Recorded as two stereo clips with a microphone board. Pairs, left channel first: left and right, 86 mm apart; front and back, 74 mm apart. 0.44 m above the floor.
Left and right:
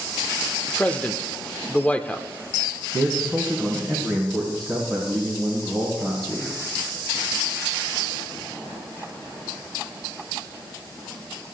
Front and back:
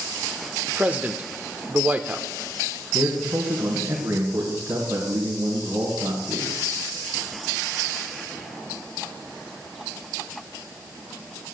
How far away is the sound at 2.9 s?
About 3.5 m.